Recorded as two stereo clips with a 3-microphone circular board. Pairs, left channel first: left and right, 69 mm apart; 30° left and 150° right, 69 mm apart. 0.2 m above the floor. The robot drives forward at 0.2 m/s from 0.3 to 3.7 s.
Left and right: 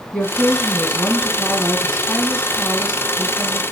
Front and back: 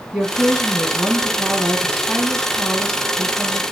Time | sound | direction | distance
0.1 | a woman speaking | 145° left | 1.7 m